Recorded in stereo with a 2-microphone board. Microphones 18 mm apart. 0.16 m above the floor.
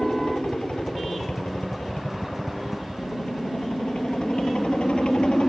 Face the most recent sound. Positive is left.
turn(degrees=60)  # may be behind; listen again after turning